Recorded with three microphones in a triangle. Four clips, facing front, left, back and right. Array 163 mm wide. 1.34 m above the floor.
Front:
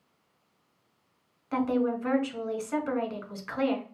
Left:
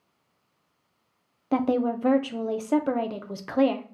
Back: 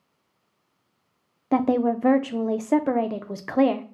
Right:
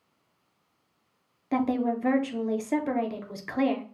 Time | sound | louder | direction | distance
1.5 | a woman speaking | left 2 dB, back 6 dB | 165° left | 0.5 m